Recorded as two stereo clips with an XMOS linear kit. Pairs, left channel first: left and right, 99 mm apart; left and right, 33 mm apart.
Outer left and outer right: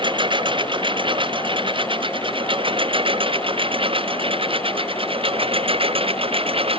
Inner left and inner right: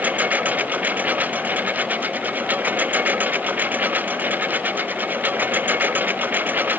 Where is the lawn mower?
50° right (ahead or behind); by 6.8 s 65° right (ahead or behind).